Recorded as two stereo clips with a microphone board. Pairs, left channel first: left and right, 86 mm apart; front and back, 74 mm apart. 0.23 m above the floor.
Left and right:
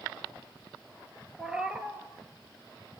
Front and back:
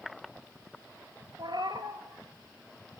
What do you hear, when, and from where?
1.4 s a cat meowing: 170° right, 1.5 m